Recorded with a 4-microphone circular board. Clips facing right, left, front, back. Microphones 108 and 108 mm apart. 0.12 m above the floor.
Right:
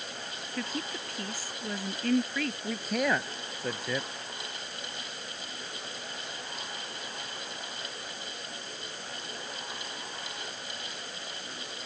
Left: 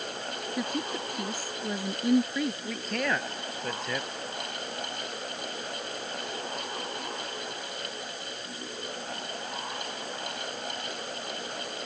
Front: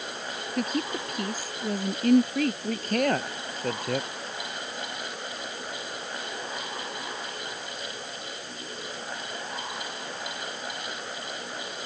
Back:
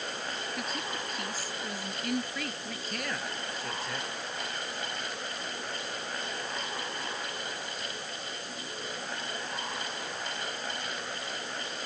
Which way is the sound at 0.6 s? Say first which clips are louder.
Left 3 dB, front 12 dB; 20° left.